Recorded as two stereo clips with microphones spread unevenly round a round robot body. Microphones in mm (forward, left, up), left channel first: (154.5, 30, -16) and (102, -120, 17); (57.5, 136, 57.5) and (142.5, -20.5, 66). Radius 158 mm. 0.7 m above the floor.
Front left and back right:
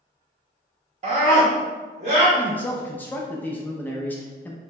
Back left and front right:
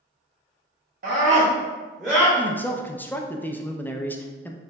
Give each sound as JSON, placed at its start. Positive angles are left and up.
{"t": 1.0, "sound": "a scream", "azimuth_deg": -65, "distance_m": 1.1}
{"t": 2.4, "sound": "a man speaking", "azimuth_deg": 60, "distance_m": 0.5}